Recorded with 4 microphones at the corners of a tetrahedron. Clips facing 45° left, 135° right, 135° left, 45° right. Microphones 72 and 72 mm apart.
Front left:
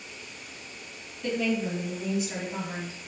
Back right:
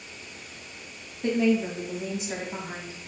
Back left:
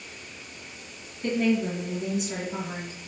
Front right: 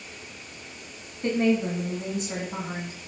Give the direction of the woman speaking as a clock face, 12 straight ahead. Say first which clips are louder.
Back right 4 dB, front right 1 dB; 3 o'clock.